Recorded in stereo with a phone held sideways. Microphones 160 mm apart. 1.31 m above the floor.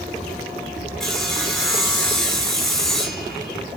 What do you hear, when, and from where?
1.0 s sawing: 5° left (ahead or behind), 1.0 m